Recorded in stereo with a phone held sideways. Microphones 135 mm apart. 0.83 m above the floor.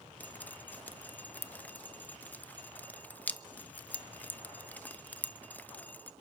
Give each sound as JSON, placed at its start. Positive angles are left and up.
{"t": 0.2, "sound": "dripping", "side_deg": 10, "distance_m": 0.7}